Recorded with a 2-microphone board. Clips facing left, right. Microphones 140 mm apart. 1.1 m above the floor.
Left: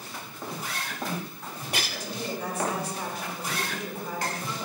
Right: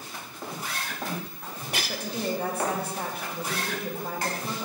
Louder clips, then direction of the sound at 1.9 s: Right 4 dB; 60° right (ahead or behind).